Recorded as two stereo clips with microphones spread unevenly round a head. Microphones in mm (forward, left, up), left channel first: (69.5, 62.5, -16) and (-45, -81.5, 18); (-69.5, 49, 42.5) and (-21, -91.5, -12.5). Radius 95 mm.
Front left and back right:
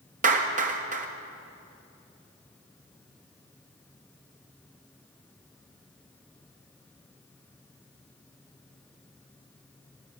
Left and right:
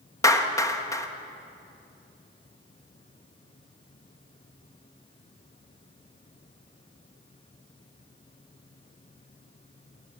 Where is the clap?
Straight behind, 1.6 m.